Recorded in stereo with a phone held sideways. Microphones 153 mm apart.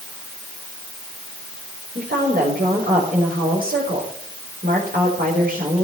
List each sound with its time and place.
1.9 s a woman speaking: 80° right, 4.5 m